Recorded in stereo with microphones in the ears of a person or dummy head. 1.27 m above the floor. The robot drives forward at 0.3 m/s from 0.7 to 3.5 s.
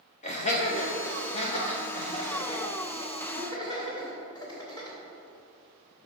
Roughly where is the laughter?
Left.